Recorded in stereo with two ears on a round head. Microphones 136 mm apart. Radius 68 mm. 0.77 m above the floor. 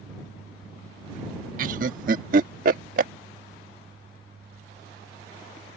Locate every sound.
1.6 s laughter: 60° right (ahead or behind)